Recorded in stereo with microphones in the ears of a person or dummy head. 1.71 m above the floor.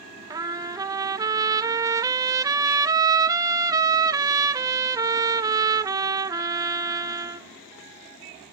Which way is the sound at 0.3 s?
20° right (ahead or behind).